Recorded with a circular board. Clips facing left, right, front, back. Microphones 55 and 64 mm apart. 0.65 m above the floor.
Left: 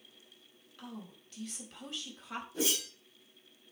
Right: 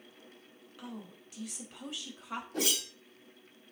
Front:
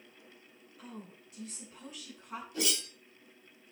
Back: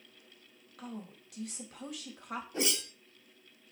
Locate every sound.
0.8 s a woman speaking: 170° right, 4 m
2.5 s a whoosh: 125° right, 3 m